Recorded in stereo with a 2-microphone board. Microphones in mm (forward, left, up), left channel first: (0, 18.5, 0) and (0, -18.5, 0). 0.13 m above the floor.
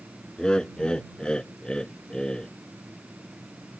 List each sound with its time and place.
0.4 s laughter: 25° left (ahead or behind)